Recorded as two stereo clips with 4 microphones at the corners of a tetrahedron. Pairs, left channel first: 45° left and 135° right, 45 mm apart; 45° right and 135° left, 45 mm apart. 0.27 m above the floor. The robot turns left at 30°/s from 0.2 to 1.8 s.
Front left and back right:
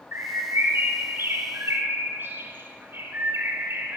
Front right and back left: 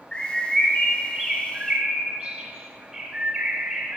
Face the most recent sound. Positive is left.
turn(degrees=-170)